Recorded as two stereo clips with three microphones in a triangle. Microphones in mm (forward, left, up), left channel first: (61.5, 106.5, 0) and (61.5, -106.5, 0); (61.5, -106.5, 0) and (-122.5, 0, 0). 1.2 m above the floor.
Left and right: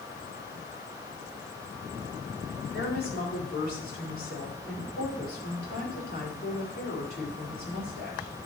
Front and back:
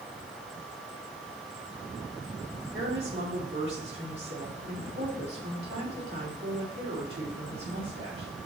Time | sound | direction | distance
2.7 | a woman speaking | 130° left | 4 m